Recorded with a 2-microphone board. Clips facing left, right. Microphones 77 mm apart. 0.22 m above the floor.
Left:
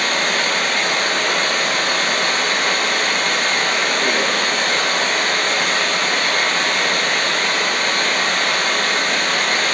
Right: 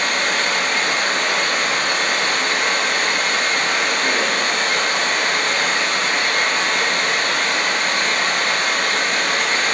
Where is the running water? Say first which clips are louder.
Left 1 dB; 60° left (ahead or behind), 2 m.